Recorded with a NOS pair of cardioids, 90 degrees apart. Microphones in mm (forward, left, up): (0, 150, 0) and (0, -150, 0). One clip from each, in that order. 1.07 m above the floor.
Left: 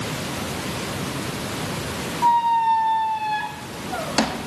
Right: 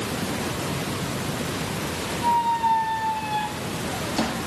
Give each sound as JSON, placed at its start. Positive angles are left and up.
{"t": 2.2, "sound": "a squeak", "azimuth_deg": 50, "distance_m": 1.0}